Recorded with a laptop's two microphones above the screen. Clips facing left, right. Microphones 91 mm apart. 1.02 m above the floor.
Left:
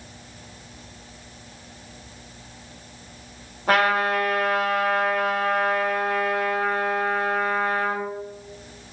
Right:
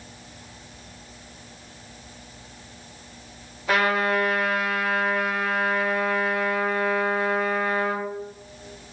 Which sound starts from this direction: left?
A trumpet, at 3.7 s.